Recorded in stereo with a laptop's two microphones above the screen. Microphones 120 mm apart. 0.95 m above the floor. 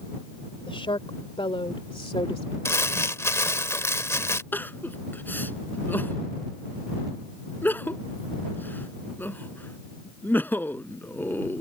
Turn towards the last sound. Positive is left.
turn(degrees=15)  # may be behind; listen again after turning